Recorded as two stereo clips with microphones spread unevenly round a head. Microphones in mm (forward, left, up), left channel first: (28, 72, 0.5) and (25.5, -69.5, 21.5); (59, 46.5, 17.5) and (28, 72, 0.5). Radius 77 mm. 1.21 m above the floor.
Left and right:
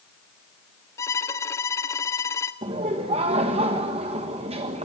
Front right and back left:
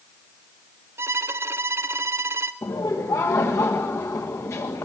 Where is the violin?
160° left, 0.6 m.